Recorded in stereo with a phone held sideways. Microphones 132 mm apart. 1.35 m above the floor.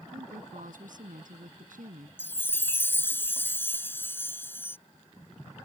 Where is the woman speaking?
90° right.